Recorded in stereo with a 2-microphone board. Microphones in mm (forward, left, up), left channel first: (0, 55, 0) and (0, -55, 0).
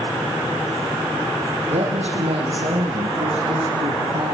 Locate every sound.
1.7 s a woman speaking: 75° right (ahead or behind), 7.5 m; by 4.3 s 70° right (ahead or behind), 10 m